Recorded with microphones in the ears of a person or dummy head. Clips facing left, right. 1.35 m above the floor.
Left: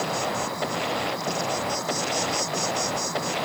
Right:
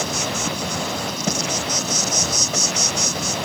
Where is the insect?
40° right (ahead or behind).